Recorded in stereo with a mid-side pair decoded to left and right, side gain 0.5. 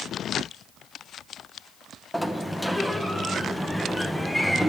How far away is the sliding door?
About 0.7 m.